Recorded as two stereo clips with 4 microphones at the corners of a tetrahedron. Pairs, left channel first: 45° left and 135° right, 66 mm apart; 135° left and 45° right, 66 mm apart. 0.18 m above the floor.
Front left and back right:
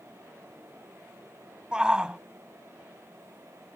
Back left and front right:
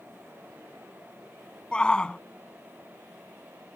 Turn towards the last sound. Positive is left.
turn(degrees=175)